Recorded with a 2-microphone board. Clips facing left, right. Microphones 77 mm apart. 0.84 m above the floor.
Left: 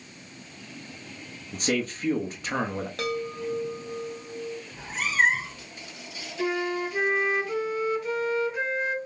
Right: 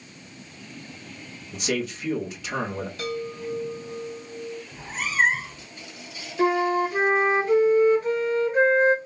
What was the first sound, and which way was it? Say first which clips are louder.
A man speaking: even; 40° left (ahead or behind).